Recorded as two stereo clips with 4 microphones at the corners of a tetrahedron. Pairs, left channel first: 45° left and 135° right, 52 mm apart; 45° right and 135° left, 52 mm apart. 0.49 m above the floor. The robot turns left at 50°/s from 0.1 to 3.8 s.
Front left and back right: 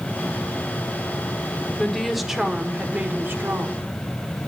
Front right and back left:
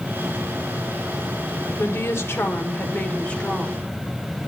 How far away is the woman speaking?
About 1.1 m.